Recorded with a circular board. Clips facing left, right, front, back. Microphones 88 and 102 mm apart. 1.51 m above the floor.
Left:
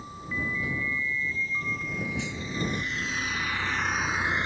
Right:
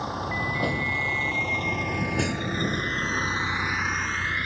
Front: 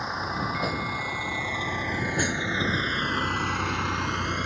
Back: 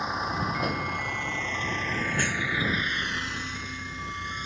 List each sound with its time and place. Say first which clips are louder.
0.0 s a vehicle: right 6 dB, back 1 dB; 90° right; by 4.5 s 25° left